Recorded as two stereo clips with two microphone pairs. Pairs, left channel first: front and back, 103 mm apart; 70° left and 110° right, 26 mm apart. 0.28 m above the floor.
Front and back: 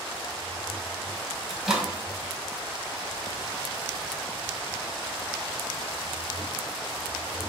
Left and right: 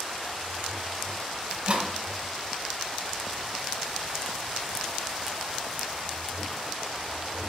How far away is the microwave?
About 1.4 m.